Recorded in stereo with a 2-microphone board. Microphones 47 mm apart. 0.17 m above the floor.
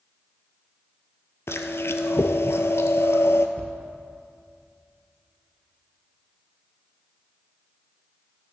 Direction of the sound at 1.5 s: 65° left (ahead or behind).